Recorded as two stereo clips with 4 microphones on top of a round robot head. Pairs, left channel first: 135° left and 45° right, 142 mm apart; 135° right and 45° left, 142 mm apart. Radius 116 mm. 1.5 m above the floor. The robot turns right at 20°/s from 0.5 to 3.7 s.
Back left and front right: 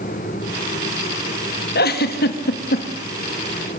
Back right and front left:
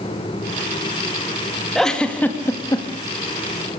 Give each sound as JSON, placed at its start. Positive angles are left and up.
{"t": 1.8, "sound": "a giggle", "azimuth_deg": 135, "distance_m": 2.0}